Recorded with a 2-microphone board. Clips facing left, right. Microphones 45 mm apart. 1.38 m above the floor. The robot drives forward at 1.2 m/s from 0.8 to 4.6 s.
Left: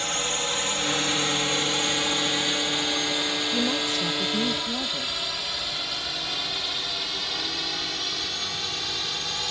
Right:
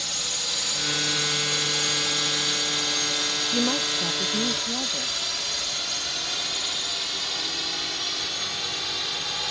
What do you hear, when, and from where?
0.0 s a drone: 40° left (ahead or behind); by 9.5 s centre (ahead or behind)
3.5 s a woman speaking: 20° right (ahead or behind); by 5.2 s 5° right (ahead or behind)